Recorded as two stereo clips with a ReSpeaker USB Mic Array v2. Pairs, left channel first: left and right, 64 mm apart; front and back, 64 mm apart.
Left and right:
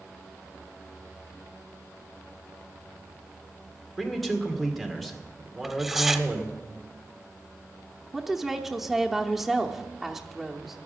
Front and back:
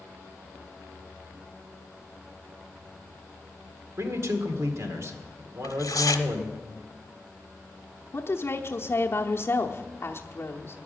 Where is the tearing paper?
Straight ahead, 0.9 m.